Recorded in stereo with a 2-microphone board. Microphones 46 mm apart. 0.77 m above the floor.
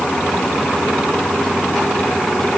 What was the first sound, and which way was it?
Only background noise.